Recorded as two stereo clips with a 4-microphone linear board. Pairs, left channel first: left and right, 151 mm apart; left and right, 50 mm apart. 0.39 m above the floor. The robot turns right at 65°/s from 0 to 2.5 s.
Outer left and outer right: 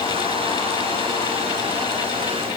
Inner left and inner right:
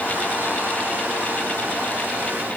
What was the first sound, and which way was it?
Only background noise.